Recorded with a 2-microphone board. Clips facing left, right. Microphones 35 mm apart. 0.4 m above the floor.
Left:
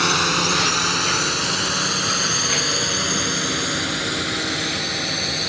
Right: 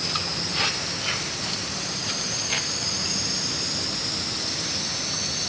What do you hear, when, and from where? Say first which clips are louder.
0.0 s a drone: left 11 dB; 70° left (ahead or behind); by 5.5 s 45° left (ahead or behind)